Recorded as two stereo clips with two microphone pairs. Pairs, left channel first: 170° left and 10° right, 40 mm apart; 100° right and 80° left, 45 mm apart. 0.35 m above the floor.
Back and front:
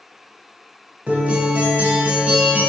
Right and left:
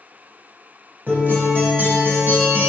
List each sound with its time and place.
1.1 s a guitar: 40° left, 0.8 m